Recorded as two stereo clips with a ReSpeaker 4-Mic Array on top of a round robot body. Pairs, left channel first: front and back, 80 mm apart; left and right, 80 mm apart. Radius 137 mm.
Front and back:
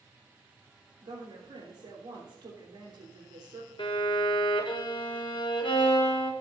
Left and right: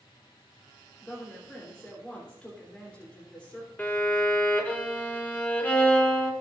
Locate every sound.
1.0 s a woman speaking: 165° left, 3 m
3.8 s a violin: 20° left, 1.5 m